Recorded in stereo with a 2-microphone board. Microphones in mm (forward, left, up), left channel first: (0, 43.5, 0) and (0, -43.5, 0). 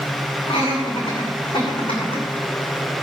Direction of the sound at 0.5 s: 75° left (ahead or behind).